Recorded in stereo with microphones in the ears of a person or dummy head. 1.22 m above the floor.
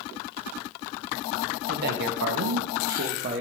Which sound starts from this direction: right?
A man speaking, at 1.7 s.